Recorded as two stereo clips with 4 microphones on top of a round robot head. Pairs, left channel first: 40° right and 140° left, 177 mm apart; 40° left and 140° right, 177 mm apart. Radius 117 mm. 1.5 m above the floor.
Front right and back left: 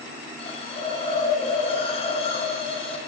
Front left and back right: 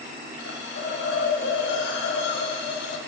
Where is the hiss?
20° left, 1.5 m.